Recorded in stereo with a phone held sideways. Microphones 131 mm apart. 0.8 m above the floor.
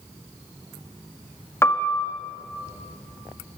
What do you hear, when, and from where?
1.6 s a piano: 20° left (ahead or behind), 1.8 m